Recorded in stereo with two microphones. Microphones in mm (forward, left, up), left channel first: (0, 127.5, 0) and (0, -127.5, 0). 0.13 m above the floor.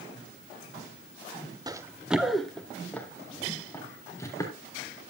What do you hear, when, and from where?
1.7 s running footsteps: 15° right (ahead or behind), 1.2 m; by 4.5 s 15° left (ahead or behind), 5 m